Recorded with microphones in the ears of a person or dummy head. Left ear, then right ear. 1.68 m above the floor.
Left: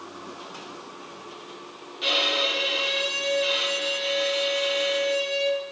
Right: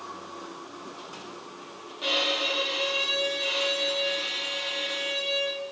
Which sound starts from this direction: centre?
A violin, at 2.0 s.